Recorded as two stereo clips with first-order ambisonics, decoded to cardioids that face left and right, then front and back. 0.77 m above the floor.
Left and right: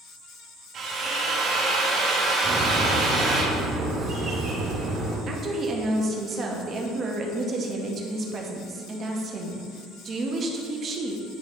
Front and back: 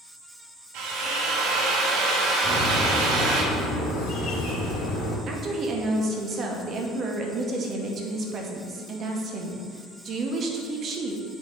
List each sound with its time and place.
0.7 s a drill: 150° right, 1.6 m
2.4 s a bird: 35° right, 1.7 m
5.3 s a woman speaking: 140° right, 0.8 m